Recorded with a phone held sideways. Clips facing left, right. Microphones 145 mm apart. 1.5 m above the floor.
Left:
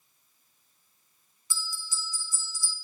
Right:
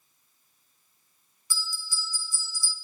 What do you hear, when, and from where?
1.5 s a bell: 20° left (ahead or behind), 1.1 m